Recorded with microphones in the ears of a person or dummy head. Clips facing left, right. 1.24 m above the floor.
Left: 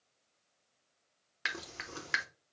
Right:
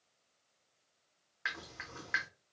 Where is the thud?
No thud in this recording.